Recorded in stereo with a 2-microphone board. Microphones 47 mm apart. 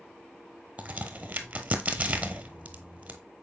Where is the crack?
40° right (ahead or behind), 0.9 m.